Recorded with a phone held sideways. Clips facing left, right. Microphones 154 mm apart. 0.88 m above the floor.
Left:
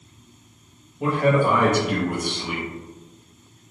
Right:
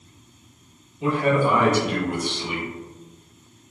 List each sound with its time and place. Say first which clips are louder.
1.0 s a man speaking: left 1 dB; 50° left (ahead or behind), 0.8 m